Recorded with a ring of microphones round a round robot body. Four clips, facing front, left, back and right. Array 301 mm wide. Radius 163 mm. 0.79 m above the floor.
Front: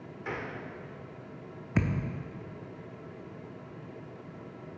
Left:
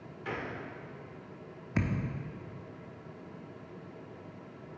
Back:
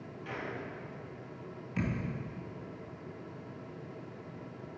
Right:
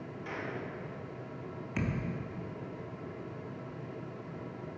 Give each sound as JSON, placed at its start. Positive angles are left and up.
{"t": 0.2, "sound": "a gunshot", "azimuth_deg": 30, "distance_m": 1.2}
{"t": 1.8, "sound": "a thud", "azimuth_deg": 15, "distance_m": 0.7}